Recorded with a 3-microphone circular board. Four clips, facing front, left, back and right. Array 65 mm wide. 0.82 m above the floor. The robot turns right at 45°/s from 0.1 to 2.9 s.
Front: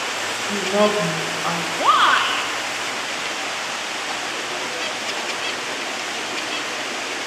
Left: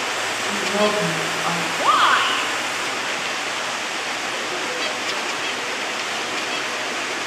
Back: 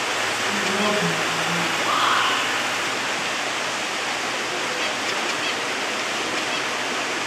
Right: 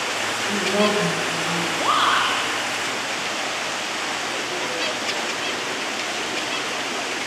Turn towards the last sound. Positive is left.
turn(degrees=70)